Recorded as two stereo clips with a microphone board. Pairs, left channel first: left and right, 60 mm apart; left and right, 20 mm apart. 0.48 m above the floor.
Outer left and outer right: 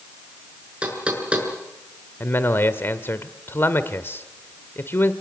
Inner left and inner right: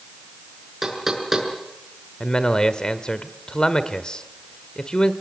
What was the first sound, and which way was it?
Knocking, 20° right (ahead or behind).